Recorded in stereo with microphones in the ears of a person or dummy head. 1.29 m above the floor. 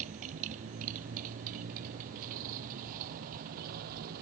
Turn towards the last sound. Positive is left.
turn(degrees=-45)  # may be behind; listen again after turning